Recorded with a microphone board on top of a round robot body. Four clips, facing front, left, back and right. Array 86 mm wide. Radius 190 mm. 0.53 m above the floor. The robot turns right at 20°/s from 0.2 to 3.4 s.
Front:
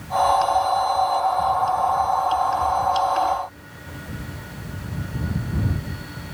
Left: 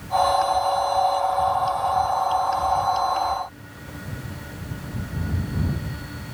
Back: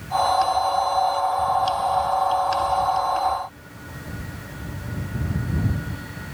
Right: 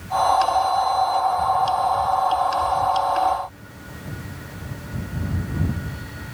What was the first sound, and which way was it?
Only background noise.